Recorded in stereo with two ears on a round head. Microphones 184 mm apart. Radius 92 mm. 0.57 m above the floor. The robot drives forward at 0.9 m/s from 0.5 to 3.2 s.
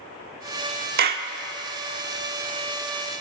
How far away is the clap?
About 1.2 m.